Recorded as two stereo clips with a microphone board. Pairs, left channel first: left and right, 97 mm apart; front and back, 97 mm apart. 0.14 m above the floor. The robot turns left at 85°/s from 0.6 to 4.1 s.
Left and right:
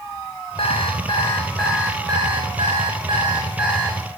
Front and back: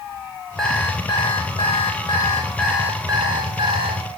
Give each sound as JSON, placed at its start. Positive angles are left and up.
{"t": 0.6, "sound": "an alarm clock", "azimuth_deg": 90, "distance_m": 5.0}